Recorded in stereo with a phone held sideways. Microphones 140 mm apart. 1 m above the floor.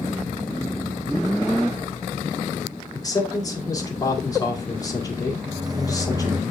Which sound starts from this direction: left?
A man speaking, at 2.9 s.